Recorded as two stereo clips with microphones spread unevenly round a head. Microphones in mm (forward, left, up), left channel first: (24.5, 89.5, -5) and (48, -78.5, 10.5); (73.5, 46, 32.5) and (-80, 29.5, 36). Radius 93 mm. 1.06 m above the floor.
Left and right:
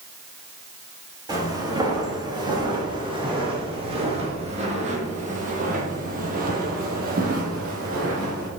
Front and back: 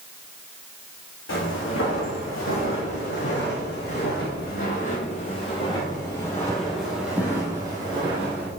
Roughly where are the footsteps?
Ahead.